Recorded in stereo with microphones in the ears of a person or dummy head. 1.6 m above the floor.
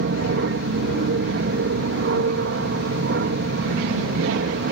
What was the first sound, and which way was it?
An aircraft, 65° right (ahead or behind).